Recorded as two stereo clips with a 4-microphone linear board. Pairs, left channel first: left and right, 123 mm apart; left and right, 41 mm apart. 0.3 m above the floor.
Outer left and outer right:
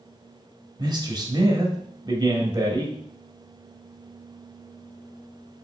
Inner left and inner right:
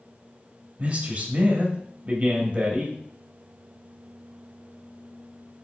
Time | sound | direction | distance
0.8 | a man speaking | 35° right (ahead or behind) | 1.0 m